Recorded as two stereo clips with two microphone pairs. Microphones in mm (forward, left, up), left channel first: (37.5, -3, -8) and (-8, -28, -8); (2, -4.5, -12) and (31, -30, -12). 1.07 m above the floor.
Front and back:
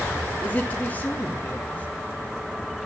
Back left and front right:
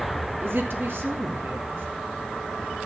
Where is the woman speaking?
30° right, 2.5 m.